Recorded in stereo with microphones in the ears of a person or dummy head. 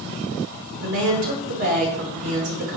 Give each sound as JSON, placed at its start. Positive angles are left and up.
{"t": 0.8, "sound": "a woman speaking", "side_deg": -70, "distance_m": 2.5}